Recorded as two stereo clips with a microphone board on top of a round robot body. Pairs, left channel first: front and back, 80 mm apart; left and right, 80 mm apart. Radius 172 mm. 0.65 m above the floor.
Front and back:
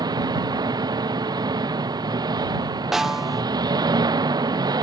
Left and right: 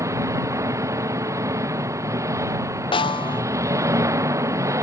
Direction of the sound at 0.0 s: 140° right.